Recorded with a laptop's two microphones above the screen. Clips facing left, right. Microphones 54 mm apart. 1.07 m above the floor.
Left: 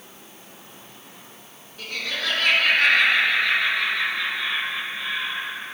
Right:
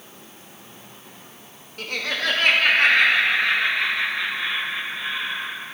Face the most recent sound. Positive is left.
turn(degrees=-25)  # may be behind; listen again after turning